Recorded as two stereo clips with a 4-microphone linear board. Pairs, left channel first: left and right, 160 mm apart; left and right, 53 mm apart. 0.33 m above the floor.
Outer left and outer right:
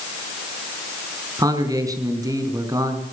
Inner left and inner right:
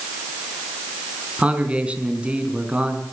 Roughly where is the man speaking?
Right.